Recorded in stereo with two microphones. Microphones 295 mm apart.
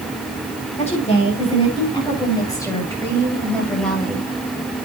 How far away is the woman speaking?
About 9.5 m.